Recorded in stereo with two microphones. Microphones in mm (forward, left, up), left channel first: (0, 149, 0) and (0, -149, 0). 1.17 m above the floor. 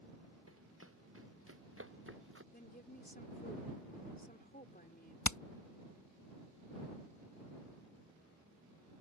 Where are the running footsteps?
45° right (ahead or behind); by 2.4 s 40° right (ahead or behind).